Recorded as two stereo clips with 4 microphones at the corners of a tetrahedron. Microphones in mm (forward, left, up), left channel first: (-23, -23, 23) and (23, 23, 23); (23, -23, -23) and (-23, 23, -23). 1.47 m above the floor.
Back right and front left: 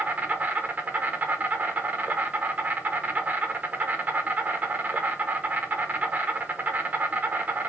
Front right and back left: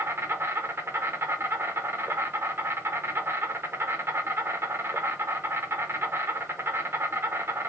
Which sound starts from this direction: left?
An insect, at 0.0 s.